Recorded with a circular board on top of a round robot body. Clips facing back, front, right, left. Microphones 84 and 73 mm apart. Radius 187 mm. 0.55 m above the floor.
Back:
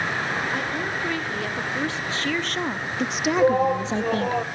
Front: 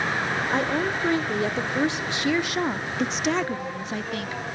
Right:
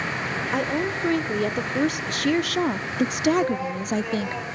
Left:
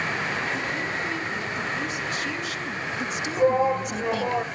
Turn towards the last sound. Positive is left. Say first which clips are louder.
# back 10 dB, left 4 dB
turn(degrees=145)